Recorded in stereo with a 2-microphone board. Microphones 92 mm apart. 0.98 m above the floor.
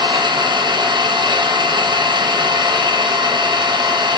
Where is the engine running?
55° right (ahead or behind), 1.0 m.